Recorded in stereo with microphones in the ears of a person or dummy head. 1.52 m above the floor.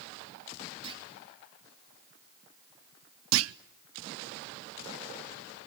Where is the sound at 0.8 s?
30° right (ahead or behind), 3 m.